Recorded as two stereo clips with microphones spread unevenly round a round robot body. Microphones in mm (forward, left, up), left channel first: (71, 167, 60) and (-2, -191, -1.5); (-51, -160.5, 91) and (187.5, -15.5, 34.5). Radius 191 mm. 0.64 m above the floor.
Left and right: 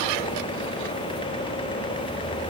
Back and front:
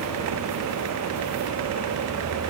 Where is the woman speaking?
No woman speaking in this recording.